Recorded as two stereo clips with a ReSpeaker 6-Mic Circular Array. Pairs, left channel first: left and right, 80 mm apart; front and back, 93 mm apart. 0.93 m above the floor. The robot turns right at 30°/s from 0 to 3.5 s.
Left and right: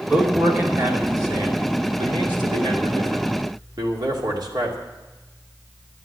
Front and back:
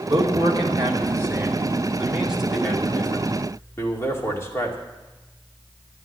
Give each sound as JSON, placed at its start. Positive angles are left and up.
{"t": 0.1, "sound": "a man speaking", "azimuth_deg": -165, "distance_m": 2.5}